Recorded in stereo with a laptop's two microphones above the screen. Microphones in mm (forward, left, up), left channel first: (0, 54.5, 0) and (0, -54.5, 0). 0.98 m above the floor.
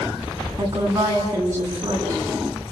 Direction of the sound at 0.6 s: 30° right (ahead or behind).